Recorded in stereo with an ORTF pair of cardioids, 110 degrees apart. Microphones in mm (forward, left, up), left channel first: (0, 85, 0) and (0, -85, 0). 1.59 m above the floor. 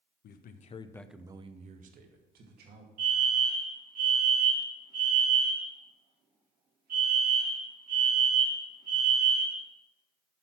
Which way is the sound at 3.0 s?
55° right.